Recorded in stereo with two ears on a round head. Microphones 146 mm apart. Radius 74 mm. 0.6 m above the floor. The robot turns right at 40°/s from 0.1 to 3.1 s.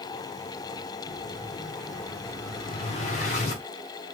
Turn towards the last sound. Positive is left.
turn(degrees=45)  # may be behind; listen again after turning